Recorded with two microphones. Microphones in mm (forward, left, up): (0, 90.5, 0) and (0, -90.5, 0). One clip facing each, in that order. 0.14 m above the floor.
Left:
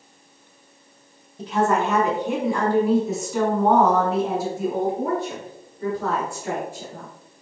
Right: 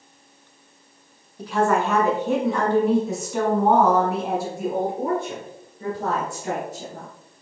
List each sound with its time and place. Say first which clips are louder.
1.4 s a woman speaking: even; 25° left (ahead or behind), 1.5 m; by 7.1 s 25° right (ahead or behind), 2.5 m